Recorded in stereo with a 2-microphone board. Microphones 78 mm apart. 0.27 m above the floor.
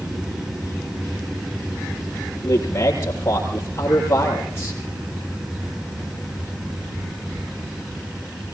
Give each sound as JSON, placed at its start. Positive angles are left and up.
{"t": 2.4, "sound": "a man speaking", "side_deg": 35, "distance_m": 8.5}